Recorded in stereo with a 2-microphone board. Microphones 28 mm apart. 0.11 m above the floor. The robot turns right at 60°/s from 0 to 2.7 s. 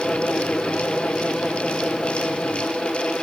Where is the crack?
I don't hear a crack.